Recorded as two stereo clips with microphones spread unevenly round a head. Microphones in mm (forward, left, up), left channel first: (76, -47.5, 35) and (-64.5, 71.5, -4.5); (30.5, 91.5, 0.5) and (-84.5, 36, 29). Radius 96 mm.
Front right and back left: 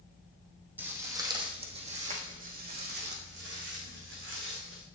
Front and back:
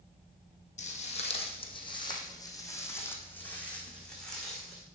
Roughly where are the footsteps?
Ahead left.